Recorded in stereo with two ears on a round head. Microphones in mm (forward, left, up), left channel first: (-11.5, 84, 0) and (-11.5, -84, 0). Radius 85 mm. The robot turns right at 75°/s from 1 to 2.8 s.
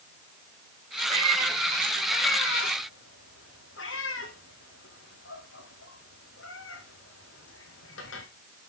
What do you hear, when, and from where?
1.1 s a cat meowing: 40° right (ahead or behind), 5 m; by 8.3 s 75° left (ahead or behind), 5 m